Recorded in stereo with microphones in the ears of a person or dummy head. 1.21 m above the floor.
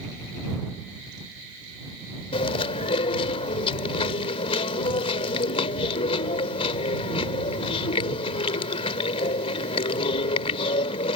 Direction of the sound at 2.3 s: 35° left (ahead or behind).